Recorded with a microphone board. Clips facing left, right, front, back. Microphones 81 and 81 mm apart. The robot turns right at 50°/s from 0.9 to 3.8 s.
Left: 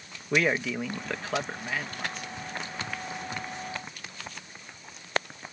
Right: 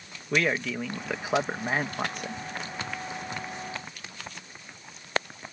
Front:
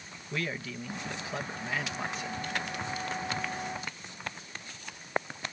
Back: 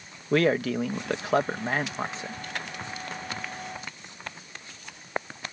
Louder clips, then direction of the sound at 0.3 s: Left 1 dB, back 13 dB; 175° left.